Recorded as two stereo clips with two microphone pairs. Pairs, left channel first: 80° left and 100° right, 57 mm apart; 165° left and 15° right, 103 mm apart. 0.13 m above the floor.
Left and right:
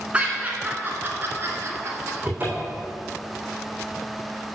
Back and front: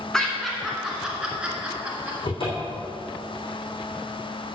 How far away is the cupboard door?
About 3 m.